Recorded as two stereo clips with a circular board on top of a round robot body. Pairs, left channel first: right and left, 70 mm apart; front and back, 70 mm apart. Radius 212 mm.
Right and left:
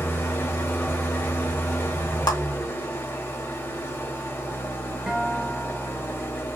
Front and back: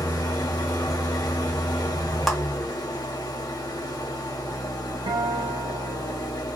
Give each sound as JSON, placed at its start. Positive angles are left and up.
{"t": 0.0, "sound": "an engine running", "azimuth_deg": -35, "distance_m": 1.1}
{"t": 2.3, "sound": "a clap", "azimuth_deg": -90, "distance_m": 1.9}
{"t": 5.1, "sound": "a guitar", "azimuth_deg": 170, "distance_m": 0.9}